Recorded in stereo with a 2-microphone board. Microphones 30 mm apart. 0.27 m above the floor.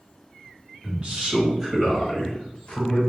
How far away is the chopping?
I don't hear chopping.